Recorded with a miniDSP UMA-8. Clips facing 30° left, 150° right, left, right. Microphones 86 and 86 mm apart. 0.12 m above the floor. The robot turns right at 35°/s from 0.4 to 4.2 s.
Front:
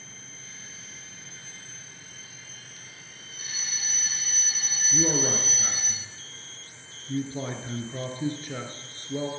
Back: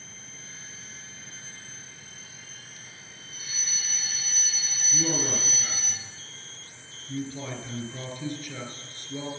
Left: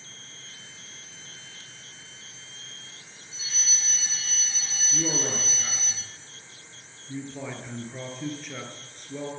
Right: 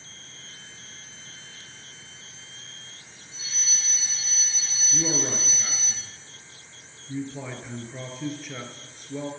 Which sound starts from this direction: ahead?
A man speaking, at 4.9 s.